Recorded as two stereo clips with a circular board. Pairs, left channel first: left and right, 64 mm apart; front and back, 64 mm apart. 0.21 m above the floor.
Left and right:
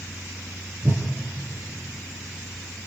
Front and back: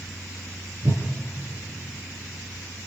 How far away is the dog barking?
I don't hear a dog barking.